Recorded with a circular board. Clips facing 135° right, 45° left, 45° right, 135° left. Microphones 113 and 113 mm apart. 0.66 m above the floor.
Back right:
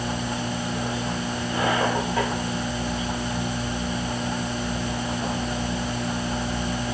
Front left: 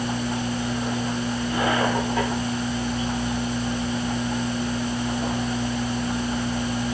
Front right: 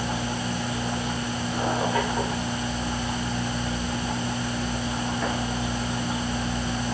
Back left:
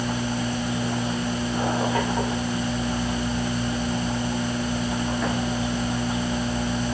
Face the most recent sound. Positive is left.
No sound to turn to.